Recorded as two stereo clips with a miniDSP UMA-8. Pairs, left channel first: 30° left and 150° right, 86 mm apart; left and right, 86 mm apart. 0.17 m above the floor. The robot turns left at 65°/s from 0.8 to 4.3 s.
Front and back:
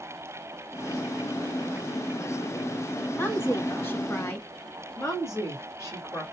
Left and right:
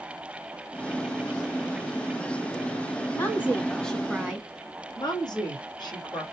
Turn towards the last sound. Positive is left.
turn(degrees=80)